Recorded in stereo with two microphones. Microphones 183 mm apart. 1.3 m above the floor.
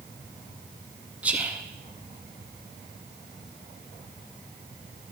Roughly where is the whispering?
Centre.